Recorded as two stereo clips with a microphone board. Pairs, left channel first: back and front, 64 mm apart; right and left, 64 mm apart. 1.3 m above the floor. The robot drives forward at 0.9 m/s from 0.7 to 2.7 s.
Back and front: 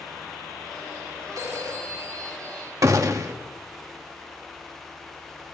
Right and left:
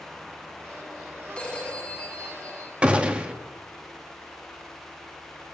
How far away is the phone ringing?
About 3.5 m.